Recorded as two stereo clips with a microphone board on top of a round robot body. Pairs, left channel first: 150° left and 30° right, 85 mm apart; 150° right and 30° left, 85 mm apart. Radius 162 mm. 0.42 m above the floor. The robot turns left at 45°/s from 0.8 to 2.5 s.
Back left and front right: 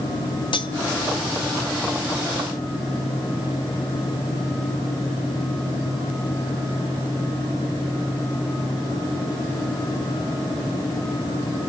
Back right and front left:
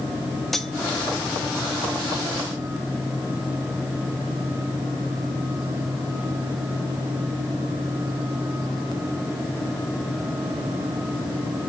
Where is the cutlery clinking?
125° left, 1.6 m.